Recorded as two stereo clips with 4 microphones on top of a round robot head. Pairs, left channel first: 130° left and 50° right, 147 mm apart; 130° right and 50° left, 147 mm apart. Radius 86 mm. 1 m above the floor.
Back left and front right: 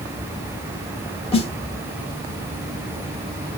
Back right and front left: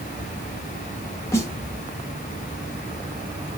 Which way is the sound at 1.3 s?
165° left.